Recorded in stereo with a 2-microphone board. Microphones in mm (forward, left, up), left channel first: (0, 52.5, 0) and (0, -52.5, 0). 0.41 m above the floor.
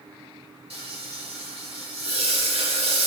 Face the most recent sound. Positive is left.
turn(degrees=-80)